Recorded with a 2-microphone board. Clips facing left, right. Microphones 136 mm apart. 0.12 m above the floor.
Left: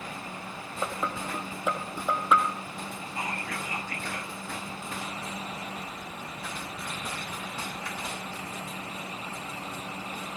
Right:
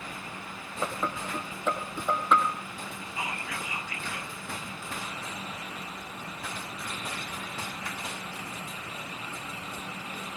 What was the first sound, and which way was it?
Dishes clattering, 5° left (ahead or behind).